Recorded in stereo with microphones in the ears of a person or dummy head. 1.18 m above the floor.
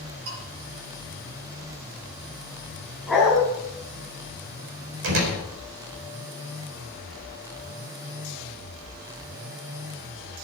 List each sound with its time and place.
0.3 s a bell: 75° right (ahead or behind), 4.5 m
3.1 s a dog barking: centre (ahead or behind), 4 m
5.0 s a door slam: 60° right (ahead or behind), 4.5 m